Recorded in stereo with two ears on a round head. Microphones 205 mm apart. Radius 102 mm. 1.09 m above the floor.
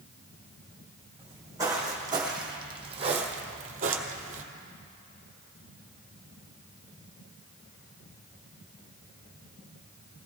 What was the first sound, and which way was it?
Footsteps, 15° right (ahead or behind).